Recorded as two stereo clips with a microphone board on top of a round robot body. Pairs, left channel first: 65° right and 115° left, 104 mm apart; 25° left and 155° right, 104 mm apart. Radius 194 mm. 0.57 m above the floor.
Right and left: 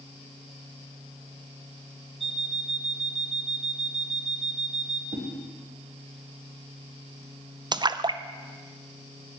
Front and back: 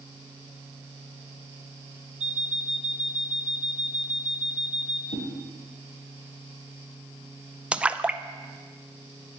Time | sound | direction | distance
2.2 | an alarm clock | 155° right | 0.8 m
5.1 | a whoosh | 55° left | 1.5 m
7.7 | a splash | 130° left | 0.6 m